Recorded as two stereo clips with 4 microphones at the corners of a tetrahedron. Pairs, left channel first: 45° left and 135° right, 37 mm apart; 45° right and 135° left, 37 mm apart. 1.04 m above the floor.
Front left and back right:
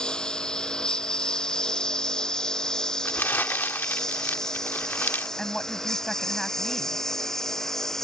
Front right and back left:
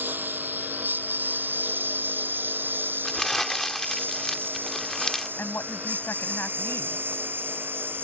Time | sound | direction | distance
0.0 | a lawn mower | 110° left | ?
3.0 | crumpling | 40° left | ?
5.4 | a woman speaking | 40° right | ?